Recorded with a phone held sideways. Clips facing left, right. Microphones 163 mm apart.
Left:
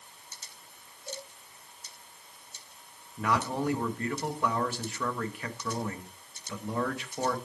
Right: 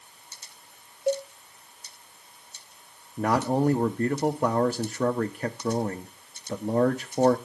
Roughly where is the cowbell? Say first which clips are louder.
Right 17 dB; right.